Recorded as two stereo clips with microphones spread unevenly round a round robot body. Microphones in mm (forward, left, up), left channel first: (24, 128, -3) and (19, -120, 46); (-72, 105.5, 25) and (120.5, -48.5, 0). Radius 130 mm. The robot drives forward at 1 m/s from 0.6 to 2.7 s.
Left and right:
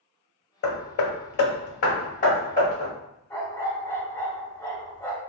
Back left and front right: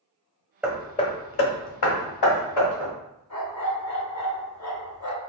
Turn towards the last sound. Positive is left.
turn(degrees=170)